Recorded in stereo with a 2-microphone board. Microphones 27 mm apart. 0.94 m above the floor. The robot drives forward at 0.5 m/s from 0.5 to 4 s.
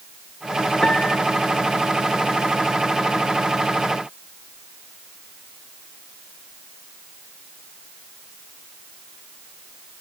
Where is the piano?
35° left (ahead or behind).